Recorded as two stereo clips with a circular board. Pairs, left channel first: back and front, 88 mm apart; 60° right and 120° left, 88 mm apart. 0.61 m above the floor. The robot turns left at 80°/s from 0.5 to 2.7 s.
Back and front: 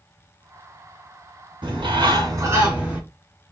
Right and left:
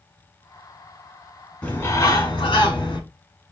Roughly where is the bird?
Ahead.